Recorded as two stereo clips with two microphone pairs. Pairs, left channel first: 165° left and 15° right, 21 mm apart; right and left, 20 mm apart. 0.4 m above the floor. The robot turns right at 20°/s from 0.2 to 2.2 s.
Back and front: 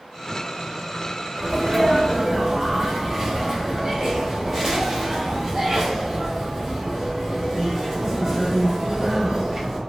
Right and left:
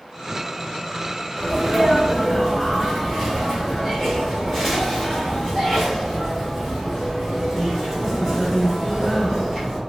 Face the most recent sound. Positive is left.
turn(degrees=-30)